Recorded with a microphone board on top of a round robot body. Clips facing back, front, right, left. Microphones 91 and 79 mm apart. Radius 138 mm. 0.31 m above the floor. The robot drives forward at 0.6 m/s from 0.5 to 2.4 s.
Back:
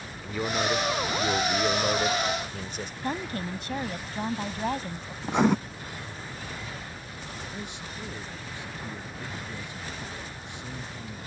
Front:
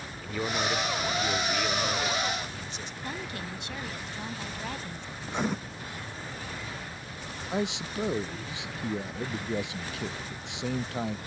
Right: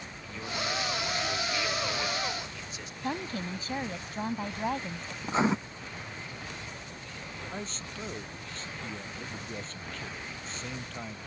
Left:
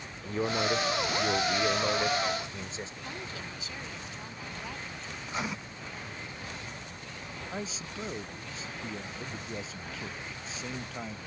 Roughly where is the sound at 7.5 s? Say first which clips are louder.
Front 8 dB, left 3 dB; ahead.